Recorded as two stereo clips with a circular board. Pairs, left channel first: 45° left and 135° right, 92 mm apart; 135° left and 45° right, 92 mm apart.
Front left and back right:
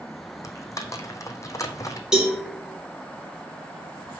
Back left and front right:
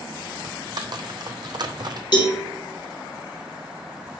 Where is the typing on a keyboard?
10° right, 0.9 m.